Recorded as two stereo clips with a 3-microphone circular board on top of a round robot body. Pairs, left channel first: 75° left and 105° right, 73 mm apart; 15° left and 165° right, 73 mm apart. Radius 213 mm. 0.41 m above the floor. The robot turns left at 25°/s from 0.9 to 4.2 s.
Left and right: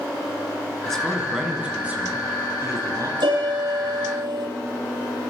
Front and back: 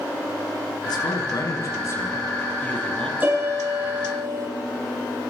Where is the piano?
95° right, 9 m; by 4.5 s 120° right, 9 m.